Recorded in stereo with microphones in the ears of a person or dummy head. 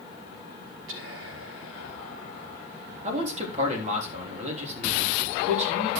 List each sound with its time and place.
0.9 s whispering: 80° right, 1.9 m
3.0 s a man speaking: 35° right (ahead or behind), 3.5 m